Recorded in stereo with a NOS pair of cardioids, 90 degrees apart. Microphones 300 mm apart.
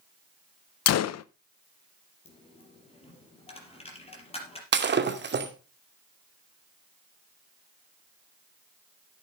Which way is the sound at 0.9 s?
60° left.